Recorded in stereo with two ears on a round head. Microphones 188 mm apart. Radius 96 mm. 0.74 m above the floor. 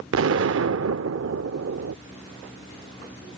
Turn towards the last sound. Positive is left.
turn(degrees=-60)  # may be behind; listen again after turning